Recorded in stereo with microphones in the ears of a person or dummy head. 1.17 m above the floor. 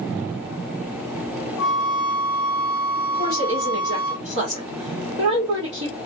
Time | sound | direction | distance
1.6 | a flute | 20° left (ahead or behind) | 1.5 m
3.1 | a woman speaking | 40° right (ahead or behind) | 1.7 m